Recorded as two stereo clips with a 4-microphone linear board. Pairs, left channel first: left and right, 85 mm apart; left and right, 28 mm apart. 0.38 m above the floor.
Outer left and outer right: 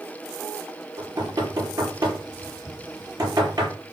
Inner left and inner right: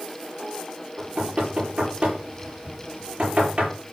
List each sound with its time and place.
1.0 s knocking: 40° right (ahead or behind), 8 m